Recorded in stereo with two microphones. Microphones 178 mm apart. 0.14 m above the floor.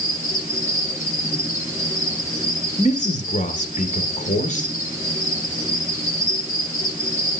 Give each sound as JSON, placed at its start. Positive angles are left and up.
{"t": 0.0, "sound": "an insect", "side_deg": -15, "distance_m": 8.0}
{"t": 2.8, "sound": "a man speaking", "side_deg": 45, "distance_m": 2.5}